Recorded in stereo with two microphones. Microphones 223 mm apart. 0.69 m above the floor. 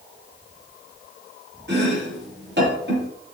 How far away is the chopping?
About 6 m.